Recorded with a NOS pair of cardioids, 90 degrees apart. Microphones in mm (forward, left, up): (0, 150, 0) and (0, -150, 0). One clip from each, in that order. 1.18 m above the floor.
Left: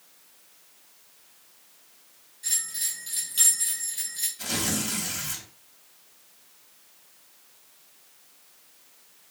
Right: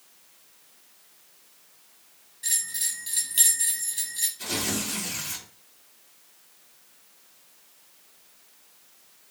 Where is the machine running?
No machine running in this recording.